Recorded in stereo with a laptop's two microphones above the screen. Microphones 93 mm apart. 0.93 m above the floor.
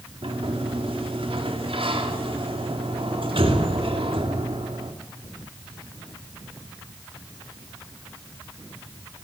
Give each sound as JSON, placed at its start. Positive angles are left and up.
{"t": 0.2, "sound": "a sliding door", "side_deg": -75, "distance_m": 2.5}